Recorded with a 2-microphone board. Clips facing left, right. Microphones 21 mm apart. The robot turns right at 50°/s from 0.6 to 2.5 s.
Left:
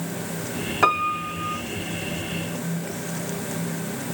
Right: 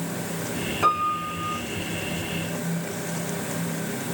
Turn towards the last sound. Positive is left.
turn(degrees=175)